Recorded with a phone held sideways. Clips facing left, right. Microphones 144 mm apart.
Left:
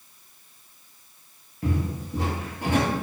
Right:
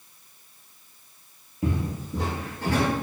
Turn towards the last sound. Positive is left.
turn(degrees=30)  # may be behind; listen again after turning